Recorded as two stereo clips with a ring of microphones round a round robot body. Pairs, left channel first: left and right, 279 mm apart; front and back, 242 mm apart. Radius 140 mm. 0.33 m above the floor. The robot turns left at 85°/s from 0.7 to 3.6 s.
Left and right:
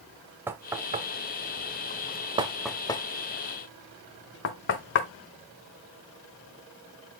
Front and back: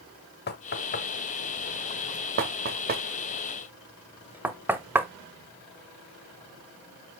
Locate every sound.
0.5 s knocking: 10° right, 0.9 m; by 5.1 s 100° left, 0.9 m